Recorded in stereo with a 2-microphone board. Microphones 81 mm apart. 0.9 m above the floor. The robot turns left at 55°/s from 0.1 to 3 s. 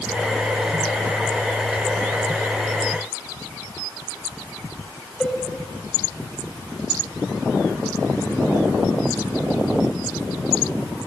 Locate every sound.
5.2 s a cowbell: 5° left (ahead or behind), 3.5 m